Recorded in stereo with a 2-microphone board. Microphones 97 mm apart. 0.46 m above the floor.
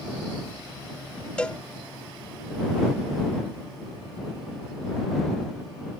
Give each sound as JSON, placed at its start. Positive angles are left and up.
{"t": 1.4, "sound": "a cowbell", "side_deg": 10}